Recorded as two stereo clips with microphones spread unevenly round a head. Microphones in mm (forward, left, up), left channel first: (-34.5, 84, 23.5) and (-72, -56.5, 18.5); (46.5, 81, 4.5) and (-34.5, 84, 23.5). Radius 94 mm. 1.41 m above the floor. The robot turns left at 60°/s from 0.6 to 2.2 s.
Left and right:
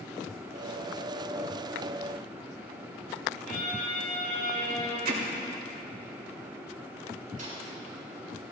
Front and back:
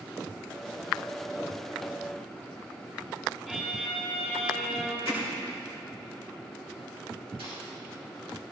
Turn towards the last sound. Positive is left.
turn(degrees=-135)